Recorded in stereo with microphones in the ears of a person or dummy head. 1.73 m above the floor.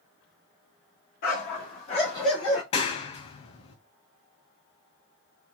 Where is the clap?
30° left (ahead or behind), 0.8 m.